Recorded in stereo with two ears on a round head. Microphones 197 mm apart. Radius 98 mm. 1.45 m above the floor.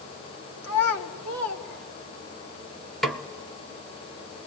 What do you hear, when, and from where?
0.6 s a child speaking: 70° left (ahead or behind), 2.5 m; by 2.4 s 85° left, 4 m
3.0 s a snare drum: centre (ahead or behind), 1.3 m